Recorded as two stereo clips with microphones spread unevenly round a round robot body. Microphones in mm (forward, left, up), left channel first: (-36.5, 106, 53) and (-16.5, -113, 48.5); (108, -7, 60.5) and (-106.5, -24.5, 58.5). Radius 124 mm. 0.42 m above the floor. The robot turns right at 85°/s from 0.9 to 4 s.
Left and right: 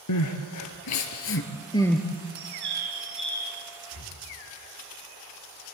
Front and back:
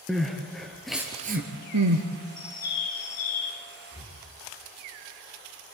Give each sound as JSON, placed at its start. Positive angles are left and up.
{"t": 0.1, "sound": "crying", "azimuth_deg": 95, "distance_m": 2.0}
{"t": 2.4, "sound": "a bird", "azimuth_deg": -65, "distance_m": 5.0}
{"t": 3.9, "sound": "breathing", "azimuth_deg": 110, "distance_m": 4.0}